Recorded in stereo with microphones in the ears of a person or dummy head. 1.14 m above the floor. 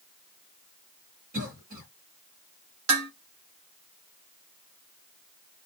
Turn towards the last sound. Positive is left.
turn(degrees=-55)  # may be behind; listen again after turning